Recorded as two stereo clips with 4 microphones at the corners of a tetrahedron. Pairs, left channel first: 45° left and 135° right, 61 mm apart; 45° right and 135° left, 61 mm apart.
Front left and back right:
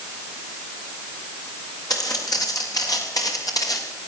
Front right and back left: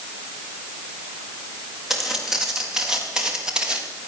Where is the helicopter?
I don't hear a helicopter.